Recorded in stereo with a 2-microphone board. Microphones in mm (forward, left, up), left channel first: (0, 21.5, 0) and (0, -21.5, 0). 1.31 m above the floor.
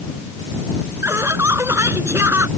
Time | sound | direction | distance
1.0 | laughter | 75° right (ahead or behind) | ?